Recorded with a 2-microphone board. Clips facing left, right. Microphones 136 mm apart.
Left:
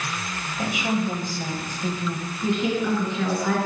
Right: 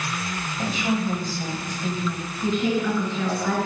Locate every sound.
0.6 s a woman speaking: 15° left (ahead or behind), 1.5 m
2.4 s a woman speaking: 5° left (ahead or behind), 3 m